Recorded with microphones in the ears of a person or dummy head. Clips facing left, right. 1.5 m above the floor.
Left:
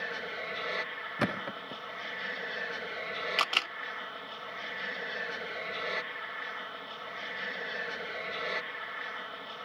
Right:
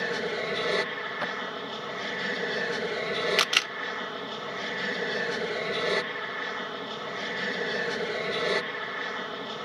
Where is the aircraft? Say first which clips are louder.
Right 10 dB; 60° right (ahead or behind).